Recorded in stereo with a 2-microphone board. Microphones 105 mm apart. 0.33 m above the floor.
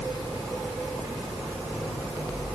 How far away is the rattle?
No rattle in this recording.